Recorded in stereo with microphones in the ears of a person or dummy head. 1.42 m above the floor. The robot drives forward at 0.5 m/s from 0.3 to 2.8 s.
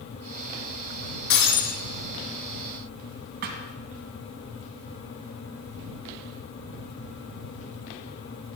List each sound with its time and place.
1.3 s breaking glass: 70° left (ahead or behind), 4 m; by 1.8 s 65° left (ahead or behind), 4 m
3.4 s a thud: 50° right (ahead or behind), 1.8 m